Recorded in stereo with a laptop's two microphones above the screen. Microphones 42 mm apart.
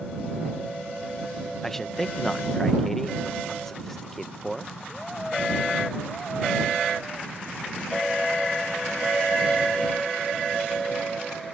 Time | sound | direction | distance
1.6 | a man speaking | 10° left (ahead or behind) | ?